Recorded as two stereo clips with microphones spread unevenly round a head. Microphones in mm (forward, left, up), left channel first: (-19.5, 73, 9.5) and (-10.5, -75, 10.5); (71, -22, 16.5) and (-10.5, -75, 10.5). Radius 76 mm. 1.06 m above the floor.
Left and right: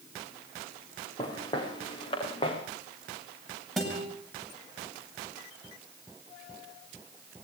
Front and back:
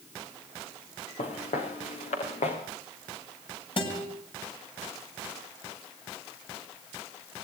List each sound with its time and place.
1.2 s footsteps: 30° left, 7 m; by 2.6 s 35° left, 6.5 m
3.8 s a guitar: 5° left, 8 m